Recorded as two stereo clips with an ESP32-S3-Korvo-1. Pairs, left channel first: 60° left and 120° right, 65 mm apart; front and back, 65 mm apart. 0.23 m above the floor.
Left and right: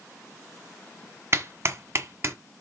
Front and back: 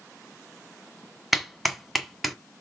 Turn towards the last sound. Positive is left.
turn(degrees=-90)